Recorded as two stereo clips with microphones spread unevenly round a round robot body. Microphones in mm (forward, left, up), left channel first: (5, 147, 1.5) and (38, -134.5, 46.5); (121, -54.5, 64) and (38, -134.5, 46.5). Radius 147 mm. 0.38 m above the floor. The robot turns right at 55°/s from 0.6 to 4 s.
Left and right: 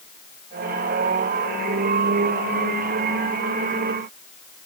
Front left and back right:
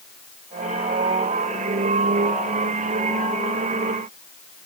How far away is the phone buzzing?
No phone buzzing in this recording.